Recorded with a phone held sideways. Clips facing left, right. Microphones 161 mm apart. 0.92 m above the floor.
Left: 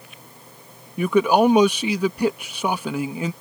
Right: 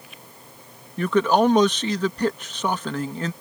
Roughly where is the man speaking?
Centre.